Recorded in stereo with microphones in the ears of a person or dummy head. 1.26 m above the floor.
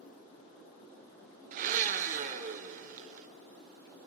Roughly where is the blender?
Right.